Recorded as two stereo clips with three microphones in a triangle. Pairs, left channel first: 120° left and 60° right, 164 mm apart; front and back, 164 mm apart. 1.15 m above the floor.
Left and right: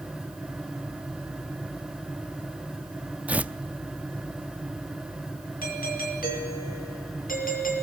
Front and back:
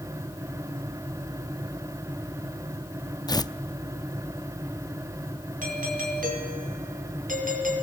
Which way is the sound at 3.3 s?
10° left.